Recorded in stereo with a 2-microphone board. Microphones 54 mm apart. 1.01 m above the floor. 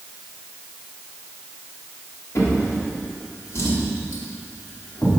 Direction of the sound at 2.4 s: 60° left (ahead or behind).